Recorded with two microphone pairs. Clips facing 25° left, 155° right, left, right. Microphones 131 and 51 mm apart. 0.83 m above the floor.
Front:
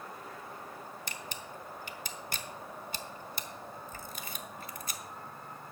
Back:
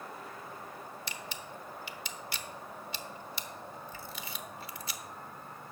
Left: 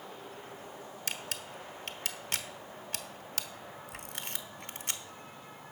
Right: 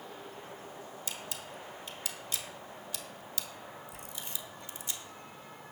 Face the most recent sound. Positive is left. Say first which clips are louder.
# even, left 5 dB
turn(degrees=65)